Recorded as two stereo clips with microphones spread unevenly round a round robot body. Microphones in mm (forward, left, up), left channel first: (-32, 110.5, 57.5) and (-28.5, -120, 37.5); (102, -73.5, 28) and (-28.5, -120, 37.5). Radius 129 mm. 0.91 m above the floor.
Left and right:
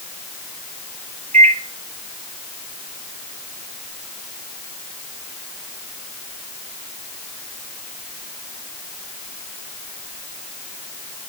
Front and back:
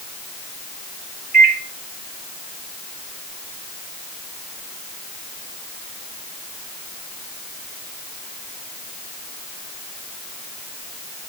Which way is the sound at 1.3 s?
145° right.